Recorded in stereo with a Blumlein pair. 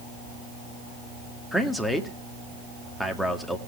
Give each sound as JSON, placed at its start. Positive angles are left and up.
{"t": 1.5, "sound": "a man speaking", "azimuth_deg": 5, "distance_m": 1.7}